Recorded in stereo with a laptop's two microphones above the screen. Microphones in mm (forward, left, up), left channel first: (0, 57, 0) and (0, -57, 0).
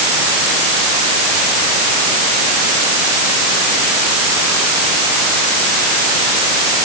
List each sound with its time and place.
Only background noise.